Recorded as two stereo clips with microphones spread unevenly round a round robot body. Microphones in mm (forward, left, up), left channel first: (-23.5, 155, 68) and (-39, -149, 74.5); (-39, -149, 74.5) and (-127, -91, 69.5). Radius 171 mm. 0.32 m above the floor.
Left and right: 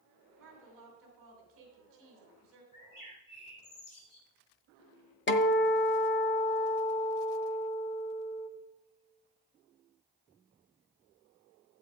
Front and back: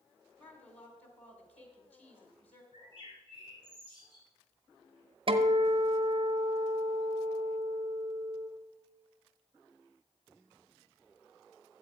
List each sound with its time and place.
0.4 s a woman speaking: 45° right, 2.5 m
2.7 s a bird: 60° left, 3.5 m
5.3 s a guitar: 135° left, 0.9 m